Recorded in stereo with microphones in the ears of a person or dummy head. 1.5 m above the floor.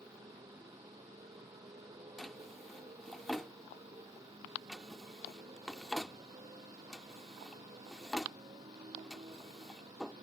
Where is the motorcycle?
10° right (ahead or behind); by 10.2 s 20° right (ahead or behind).